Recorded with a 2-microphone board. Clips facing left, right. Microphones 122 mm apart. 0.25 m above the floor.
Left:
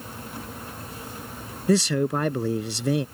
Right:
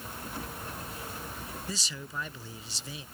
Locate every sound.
1.7 s a man speaking: 70° left (ahead or behind)